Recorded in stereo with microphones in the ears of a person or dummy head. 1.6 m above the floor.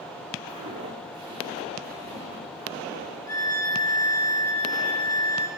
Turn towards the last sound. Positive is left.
turn(degrees=20)  # may be behind; listen again after turning